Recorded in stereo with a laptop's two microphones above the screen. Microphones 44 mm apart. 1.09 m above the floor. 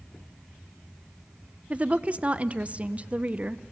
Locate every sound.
1.7 s a woman speaking: 30° right (ahead or behind), 0.7 m